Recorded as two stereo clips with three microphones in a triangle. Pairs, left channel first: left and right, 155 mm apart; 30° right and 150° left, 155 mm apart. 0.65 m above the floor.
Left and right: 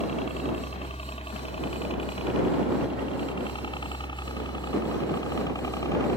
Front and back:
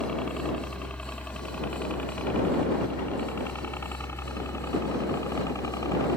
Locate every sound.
0.0 s a helicopter: 55° left; by 6.2 s 30° left